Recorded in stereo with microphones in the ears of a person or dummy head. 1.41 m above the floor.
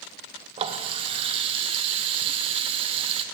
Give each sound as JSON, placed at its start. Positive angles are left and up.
{"t": 0.6, "sound": "a running tap", "side_deg": -35, "distance_m": 0.7}